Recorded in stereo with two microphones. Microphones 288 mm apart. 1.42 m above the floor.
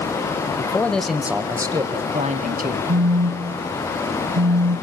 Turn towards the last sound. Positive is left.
turn(degrees=-65)  # may be behind; listen again after turning